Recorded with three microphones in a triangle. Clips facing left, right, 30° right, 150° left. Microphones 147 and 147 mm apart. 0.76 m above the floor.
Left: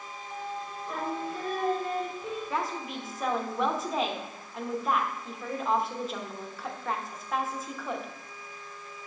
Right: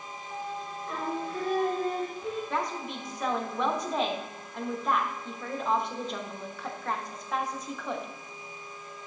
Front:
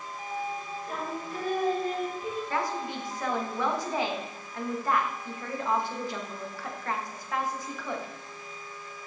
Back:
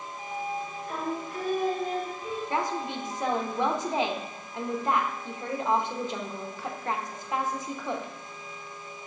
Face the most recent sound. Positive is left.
turn(degrees=175)